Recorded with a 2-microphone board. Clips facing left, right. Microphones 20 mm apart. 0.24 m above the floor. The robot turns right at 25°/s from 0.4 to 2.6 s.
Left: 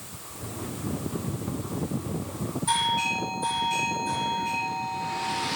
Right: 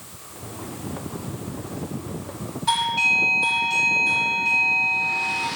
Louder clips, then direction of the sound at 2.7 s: Right 6 dB; 40° right (ahead or behind).